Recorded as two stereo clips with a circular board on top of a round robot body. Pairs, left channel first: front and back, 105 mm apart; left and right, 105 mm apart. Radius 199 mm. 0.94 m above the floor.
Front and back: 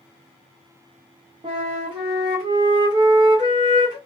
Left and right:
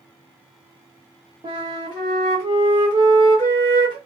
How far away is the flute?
About 0.6 m.